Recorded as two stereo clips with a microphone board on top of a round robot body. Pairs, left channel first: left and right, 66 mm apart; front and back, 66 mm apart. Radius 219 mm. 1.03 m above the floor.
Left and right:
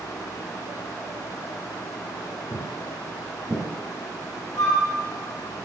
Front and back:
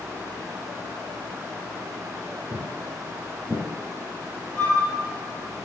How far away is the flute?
About 1.4 m.